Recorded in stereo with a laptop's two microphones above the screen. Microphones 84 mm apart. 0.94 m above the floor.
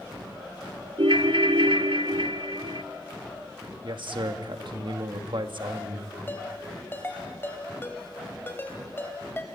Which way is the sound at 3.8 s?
70° right (ahead or behind).